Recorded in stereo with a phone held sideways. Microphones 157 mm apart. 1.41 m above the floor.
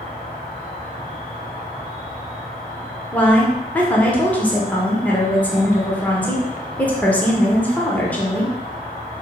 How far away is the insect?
About 1.5 m.